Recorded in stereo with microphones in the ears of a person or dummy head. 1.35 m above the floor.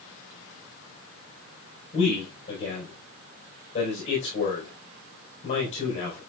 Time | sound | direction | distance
1.9 | a man speaking | 30° left (ahead or behind) | 4 m